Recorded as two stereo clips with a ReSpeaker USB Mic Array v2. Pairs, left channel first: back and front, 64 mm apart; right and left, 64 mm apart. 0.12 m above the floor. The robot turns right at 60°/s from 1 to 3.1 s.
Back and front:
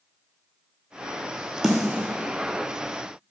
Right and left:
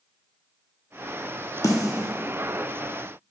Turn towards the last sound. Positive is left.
turn(degrees=0)